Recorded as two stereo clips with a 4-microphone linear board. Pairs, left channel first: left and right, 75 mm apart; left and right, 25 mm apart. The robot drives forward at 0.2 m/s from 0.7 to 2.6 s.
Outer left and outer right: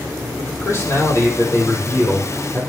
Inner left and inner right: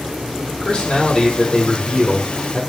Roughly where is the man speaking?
Left.